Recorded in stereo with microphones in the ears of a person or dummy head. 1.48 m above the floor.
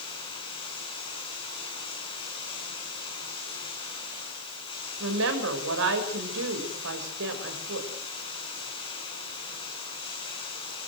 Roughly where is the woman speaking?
Right.